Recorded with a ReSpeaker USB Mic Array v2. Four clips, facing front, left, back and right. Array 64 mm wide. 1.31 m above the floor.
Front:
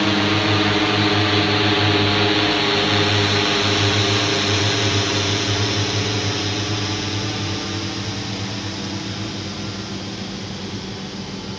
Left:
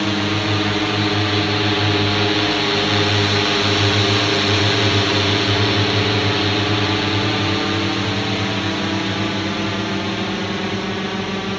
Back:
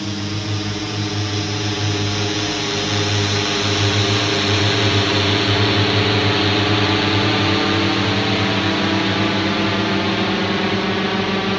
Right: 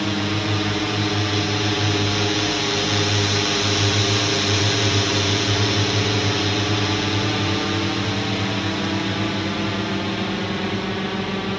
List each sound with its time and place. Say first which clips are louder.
0.0 s a drone: left 3 dB, front 8 dB; 25° left; by 11.6 s 170° left